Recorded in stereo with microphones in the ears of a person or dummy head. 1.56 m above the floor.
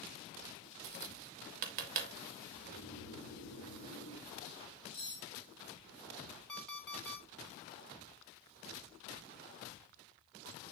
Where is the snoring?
65° left (ahead or behind), 3 m.